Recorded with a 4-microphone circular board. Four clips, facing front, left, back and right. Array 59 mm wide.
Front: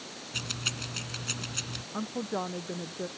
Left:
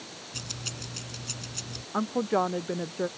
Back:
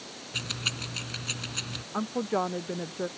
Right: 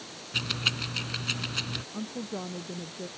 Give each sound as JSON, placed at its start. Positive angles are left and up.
{"t": 0.3, "sound": "keys jangling", "azimuth_deg": -95}
{"t": 1.9, "sound": "a woman speaking", "azimuth_deg": 110}